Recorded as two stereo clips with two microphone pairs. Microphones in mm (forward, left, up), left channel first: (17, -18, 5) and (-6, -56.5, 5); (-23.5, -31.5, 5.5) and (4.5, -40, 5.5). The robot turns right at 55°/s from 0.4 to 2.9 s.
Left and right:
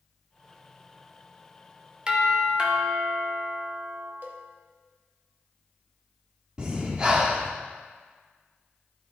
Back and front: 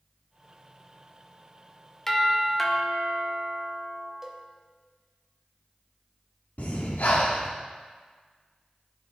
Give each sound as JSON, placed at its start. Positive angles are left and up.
{"t": 2.1, "sound": "a doorbell", "azimuth_deg": -145, "distance_m": 0.9}
{"t": 4.2, "sound": "a cowbell", "azimuth_deg": -85, "distance_m": 0.8}
{"t": 6.6, "sound": "breathing", "azimuth_deg": 175, "distance_m": 0.9}